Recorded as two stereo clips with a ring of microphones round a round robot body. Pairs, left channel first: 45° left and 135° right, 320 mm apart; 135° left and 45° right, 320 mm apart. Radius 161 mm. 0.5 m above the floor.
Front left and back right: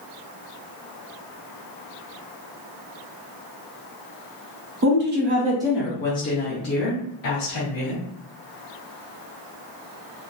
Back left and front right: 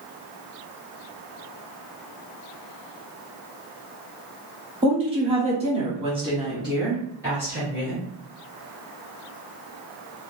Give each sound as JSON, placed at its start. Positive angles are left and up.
{"t": 4.8, "sound": "a woman speaking", "azimuth_deg": -110, "distance_m": 1.0}